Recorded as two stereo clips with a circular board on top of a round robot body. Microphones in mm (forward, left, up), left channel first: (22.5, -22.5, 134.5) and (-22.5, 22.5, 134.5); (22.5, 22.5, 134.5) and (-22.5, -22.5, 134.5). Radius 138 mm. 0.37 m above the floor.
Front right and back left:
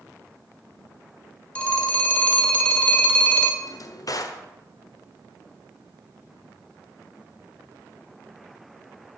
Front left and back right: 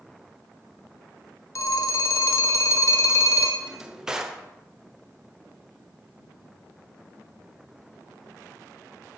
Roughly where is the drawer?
Ahead right.